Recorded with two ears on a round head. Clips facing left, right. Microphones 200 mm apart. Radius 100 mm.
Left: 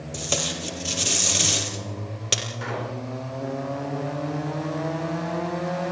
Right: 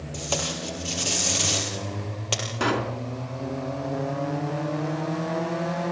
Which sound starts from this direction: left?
Tape being pulled, at 0.1 s.